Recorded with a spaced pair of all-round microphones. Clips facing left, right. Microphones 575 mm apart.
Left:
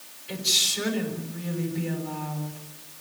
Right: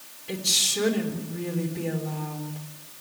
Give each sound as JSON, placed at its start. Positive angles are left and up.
{"t": 0.3, "sound": "a woman speaking", "side_deg": -60, "distance_m": 5.0}